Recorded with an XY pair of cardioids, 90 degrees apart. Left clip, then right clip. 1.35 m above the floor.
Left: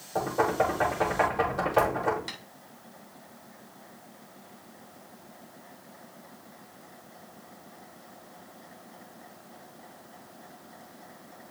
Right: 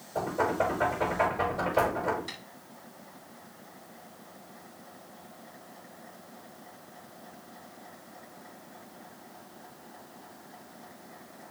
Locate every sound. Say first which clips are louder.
0.1 s knocking: left 2 dB; 70° left, 5 m
2.3 s tapping: left 2 dB; 55° left, 3 m